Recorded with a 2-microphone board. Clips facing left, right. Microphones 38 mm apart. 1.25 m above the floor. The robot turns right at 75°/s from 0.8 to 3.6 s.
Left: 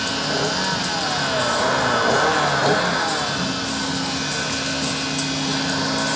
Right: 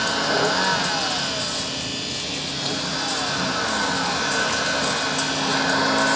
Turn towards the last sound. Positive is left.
turn(degrees=-165)